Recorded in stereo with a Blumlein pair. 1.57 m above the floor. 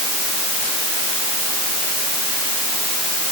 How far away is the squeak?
No squeak in this recording.